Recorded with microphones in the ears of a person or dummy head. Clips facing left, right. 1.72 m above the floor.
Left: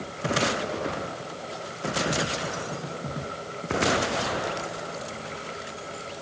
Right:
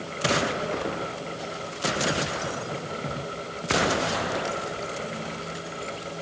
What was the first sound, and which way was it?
Only background noise.